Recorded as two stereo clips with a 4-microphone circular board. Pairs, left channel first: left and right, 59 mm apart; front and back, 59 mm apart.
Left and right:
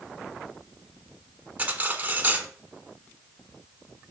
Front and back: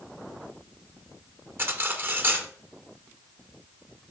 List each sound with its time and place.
1.6 s cutlery clinking: 145° right, 0.8 m